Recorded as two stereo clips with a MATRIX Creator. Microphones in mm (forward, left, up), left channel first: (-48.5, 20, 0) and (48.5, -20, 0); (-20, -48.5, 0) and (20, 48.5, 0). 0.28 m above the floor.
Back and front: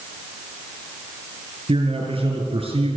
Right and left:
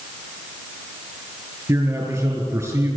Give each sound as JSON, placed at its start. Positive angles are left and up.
{"t": 1.7, "sound": "a man speaking", "azimuth_deg": 10, "distance_m": 5.5}